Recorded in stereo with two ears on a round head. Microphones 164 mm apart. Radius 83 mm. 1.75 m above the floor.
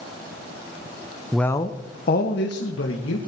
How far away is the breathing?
I don't hear breathing.